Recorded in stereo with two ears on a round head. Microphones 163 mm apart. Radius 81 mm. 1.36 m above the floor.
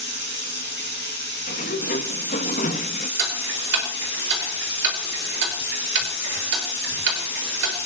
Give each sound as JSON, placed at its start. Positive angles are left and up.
{"t": 0.0, "sound": "running water", "side_deg": 65, "distance_m": 4.0}
{"t": 1.5, "sound": "a sliding door", "side_deg": 45, "distance_m": 0.9}
{"t": 3.2, "sound": "ticking", "side_deg": -65, "distance_m": 4.5}